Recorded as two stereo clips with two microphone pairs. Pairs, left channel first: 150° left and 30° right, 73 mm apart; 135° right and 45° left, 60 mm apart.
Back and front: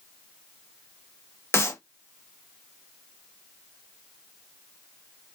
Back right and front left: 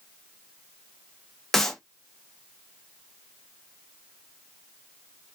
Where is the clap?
145° left, 0.7 m.